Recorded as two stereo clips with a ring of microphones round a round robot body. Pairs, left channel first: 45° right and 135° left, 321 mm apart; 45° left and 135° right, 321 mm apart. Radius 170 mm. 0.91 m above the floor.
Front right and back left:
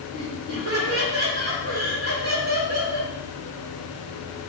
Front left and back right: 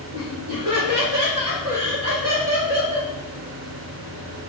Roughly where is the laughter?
Behind.